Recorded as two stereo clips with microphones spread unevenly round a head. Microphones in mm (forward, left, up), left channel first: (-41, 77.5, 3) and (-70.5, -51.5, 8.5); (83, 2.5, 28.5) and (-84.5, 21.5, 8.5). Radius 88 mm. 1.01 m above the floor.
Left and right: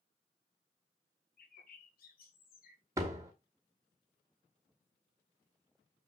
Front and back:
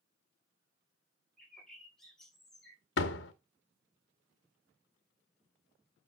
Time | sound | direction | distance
1.4 | a bird | 80° left | 2.5 m
3.0 | a door slam | 30° right | 1.2 m